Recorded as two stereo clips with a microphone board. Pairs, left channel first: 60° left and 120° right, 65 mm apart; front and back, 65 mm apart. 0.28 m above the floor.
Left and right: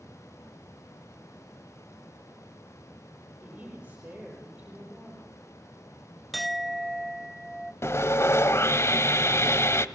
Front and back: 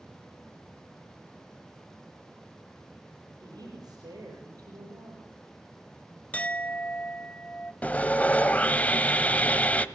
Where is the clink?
30° right, 0.6 m.